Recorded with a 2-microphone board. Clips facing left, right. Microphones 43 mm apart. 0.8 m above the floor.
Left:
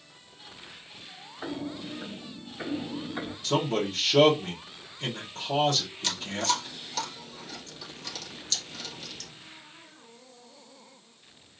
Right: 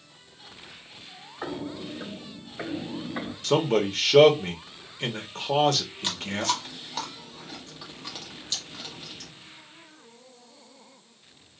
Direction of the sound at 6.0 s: 25° right (ahead or behind).